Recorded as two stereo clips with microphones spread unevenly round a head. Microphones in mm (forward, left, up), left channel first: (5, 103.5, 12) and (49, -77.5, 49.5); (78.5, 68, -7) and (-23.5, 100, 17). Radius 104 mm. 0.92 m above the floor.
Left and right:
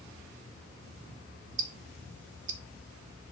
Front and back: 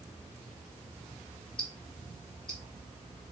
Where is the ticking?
90° right, 1.0 m.